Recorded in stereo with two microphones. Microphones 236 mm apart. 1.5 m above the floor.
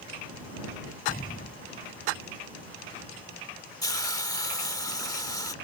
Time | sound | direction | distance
1.1 | an explosion | 35° left (ahead or behind) | ?
3.8 | a hiss | 15° left (ahead or behind) | ?